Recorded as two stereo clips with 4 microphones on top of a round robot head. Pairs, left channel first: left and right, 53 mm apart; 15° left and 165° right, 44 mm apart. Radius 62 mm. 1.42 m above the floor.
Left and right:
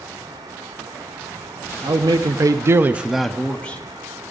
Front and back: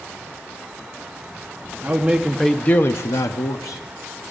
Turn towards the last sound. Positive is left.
turn(degrees=25)